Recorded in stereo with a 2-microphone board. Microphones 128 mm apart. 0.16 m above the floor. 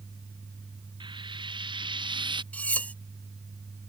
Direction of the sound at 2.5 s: 10° left (ahead or behind).